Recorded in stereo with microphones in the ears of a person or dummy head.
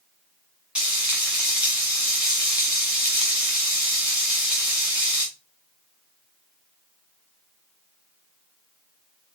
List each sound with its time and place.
0.8 s frying: 5° right (ahead or behind), 1.9 m